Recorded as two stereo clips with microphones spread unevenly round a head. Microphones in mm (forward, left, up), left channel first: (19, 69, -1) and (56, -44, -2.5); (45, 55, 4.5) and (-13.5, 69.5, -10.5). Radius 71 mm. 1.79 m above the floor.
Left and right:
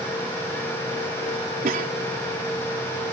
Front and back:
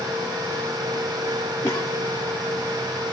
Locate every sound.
1.6 s a cough: 75° right